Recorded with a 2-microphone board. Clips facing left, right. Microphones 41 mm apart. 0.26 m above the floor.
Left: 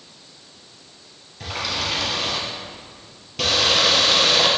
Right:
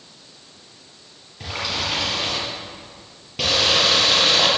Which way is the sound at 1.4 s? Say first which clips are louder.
Even; 10° right (ahead or behind).